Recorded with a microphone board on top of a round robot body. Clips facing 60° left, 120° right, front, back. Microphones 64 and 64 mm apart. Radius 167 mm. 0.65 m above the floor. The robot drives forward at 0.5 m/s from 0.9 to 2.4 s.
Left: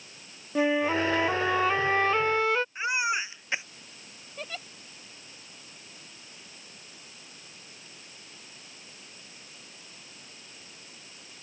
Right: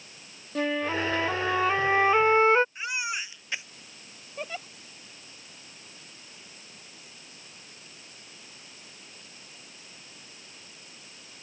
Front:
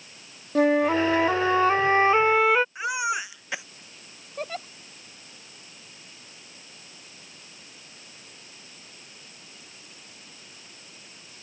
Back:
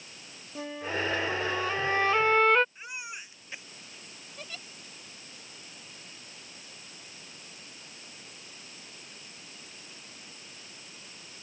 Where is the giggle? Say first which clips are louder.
Right 3 dB, front 12 dB; 45° right.